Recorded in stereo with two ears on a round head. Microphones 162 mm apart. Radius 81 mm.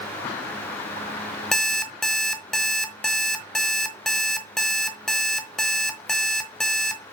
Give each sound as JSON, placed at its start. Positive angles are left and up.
{"t": 1.5, "sound": "an alarm clock", "side_deg": 0, "distance_m": 1.1}